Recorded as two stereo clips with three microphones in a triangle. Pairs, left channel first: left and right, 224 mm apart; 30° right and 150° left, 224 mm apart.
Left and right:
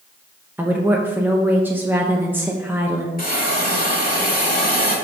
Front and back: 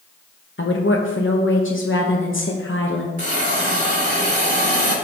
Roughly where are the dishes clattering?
No dishes clattering in this recording.